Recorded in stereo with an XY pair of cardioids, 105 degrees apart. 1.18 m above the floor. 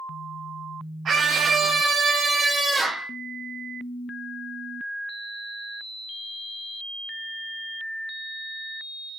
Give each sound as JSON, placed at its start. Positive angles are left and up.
{"t": 1.1, "sound": "a scream", "azimuth_deg": -55, "distance_m": 1.6}